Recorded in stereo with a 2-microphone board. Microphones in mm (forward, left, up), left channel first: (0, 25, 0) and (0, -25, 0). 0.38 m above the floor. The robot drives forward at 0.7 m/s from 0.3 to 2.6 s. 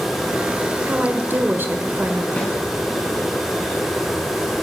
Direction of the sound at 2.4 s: 30° left (ahead or behind).